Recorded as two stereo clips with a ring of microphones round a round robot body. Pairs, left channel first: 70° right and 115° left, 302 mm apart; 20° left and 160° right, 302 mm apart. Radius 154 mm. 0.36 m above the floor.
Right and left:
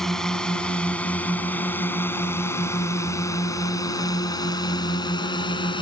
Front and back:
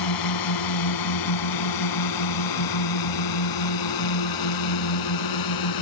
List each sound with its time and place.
0.0 s a drone: 20° left; by 5.8 s 10° left